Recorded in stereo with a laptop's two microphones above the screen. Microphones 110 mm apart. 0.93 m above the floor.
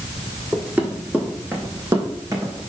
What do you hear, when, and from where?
0.5 s running footsteps: 10° right (ahead or behind), 4 m; by 2.7 s 35° right (ahead or behind), 3.5 m